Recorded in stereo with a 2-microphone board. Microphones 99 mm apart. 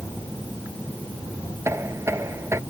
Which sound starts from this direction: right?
Knocking, at 1.6 s.